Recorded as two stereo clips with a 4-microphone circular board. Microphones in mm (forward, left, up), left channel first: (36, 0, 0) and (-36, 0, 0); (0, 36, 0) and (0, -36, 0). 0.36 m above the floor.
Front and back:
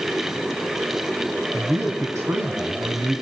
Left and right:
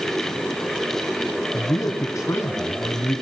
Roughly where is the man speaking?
Behind left.